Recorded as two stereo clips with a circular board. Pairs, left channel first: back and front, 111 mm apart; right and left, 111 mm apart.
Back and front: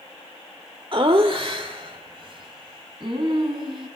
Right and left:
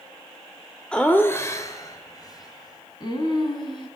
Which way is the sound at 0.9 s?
15° right.